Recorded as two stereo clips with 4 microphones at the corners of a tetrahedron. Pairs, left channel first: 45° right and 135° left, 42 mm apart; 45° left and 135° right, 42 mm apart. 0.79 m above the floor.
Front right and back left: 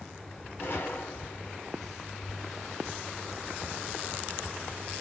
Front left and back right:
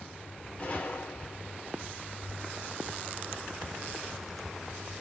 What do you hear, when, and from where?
0.6 s a gunshot: 15° right, 3 m